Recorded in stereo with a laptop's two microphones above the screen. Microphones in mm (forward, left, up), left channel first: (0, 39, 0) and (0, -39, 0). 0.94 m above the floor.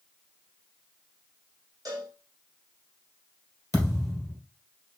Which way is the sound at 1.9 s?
55° right (ahead or behind).